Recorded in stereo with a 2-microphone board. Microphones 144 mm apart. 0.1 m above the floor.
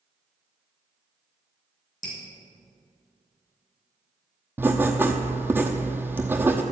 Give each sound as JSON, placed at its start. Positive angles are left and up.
{"t": 2.0, "sound": "dripping", "side_deg": 60, "distance_m": 2.5}
{"t": 4.6, "sound": "writing", "side_deg": -15, "distance_m": 0.9}